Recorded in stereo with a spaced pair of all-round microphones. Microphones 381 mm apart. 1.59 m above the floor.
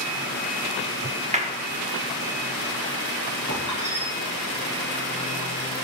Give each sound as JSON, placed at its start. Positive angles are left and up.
{"t": 1.3, "sound": "a clap", "side_deg": -20, "distance_m": 1.4}
{"t": 3.5, "sound": "a squeak", "side_deg": 70, "distance_m": 7.0}